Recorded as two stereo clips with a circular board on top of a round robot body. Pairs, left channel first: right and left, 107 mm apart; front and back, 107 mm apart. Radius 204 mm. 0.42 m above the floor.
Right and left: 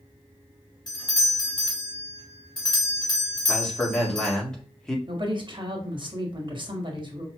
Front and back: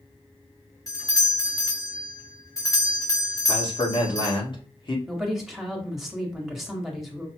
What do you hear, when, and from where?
0.9 s a doorbell: 50° right, 2 m
3.5 s a man speaking: 10° right, 1.9 m
5.1 s a woman speaking: 95° left, 1.8 m